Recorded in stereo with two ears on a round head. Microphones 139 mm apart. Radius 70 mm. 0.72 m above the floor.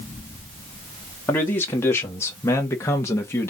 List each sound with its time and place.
1.3 s a man speaking: 15° left (ahead or behind), 1.4 m